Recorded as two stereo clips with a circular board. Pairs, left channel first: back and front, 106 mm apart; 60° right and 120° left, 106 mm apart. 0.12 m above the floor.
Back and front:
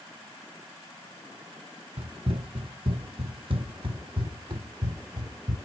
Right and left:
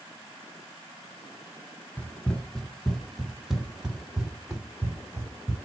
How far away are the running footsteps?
About 1.3 m.